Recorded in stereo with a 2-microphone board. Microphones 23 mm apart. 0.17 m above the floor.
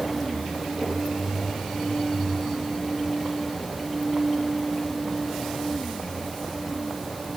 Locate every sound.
Only background noise.